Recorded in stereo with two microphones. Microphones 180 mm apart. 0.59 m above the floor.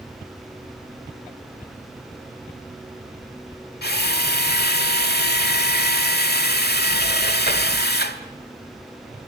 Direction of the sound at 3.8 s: 70° left (ahead or behind).